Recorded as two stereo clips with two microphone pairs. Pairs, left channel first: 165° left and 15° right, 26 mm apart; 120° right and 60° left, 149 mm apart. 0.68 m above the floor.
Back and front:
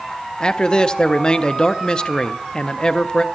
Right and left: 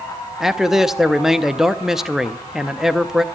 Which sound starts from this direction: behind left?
A man speaking, at 0.4 s.